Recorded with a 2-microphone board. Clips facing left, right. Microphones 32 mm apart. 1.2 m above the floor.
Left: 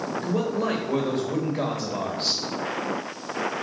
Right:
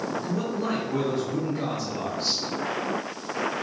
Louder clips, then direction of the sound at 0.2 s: Left 3 dB; 60° left (ahead or behind).